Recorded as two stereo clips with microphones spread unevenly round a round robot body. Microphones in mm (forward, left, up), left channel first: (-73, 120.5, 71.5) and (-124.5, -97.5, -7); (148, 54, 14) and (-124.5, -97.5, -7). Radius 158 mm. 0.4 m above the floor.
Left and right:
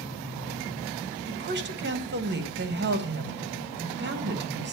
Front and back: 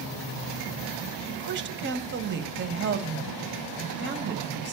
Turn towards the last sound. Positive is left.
turn(degrees=-100)